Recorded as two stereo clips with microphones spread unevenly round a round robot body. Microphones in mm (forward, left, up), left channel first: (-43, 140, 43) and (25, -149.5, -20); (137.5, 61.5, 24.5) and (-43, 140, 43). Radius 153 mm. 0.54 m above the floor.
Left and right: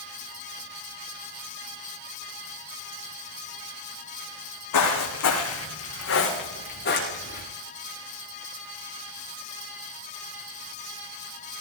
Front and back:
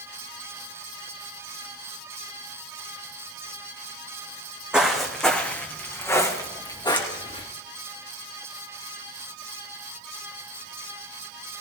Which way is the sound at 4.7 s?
70° left.